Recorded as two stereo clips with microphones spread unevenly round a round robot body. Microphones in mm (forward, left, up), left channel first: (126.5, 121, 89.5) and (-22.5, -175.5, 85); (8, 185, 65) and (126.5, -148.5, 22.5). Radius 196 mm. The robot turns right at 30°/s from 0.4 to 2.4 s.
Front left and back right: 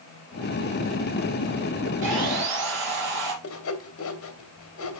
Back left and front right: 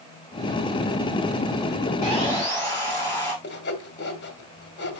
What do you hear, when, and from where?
2.0 s sawing: 150° right, 6 m; by 3.3 s 140° right, 6 m
3.4 s sawing: 55° left, 1.8 m